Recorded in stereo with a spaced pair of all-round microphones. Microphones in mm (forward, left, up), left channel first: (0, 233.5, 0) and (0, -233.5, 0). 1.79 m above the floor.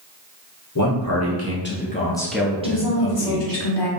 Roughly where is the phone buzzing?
No phone buzzing in this recording.